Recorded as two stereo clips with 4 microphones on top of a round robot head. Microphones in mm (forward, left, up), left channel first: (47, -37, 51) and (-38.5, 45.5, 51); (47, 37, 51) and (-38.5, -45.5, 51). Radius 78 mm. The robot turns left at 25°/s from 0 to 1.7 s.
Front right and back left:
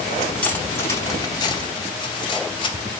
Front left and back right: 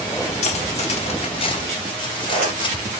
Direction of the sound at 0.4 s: 35° left.